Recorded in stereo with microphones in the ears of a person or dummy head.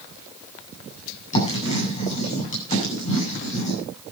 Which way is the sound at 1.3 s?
40° left (ahead or behind).